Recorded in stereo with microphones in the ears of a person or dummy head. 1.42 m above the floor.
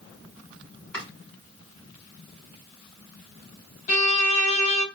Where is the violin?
45° left (ahead or behind), 0.8 m.